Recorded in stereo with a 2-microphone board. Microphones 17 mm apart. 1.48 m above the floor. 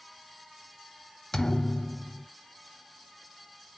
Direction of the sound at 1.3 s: 30° left (ahead or behind).